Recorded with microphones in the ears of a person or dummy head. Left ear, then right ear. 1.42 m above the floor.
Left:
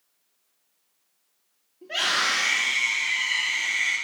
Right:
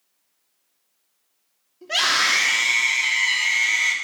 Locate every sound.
1.8 s a scream: 40° right (ahead or behind), 3.5 m